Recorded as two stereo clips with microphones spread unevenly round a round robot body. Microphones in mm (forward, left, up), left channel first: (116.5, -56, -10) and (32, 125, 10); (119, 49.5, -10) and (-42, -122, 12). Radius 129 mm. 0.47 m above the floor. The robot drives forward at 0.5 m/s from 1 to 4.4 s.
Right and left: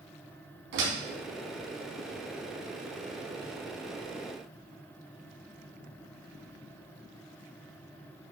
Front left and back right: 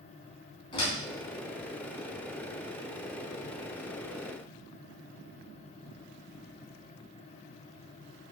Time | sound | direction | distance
0.7 | a door slam | 120° left | 3.5 m